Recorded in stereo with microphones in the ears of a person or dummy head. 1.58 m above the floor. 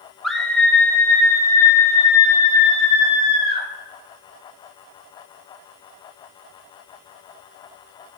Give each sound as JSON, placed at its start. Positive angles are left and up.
{"t": 0.2, "sound": "a scream", "side_deg": 0, "distance_m": 1.2}